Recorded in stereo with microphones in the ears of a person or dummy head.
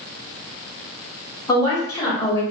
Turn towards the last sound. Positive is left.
turn(degrees=15)  # may be behind; listen again after turning